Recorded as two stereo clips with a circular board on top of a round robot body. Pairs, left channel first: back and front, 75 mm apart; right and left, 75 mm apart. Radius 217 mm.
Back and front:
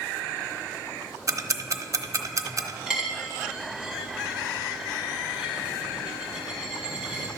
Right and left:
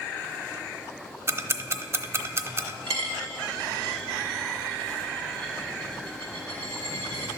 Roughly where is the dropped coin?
Left.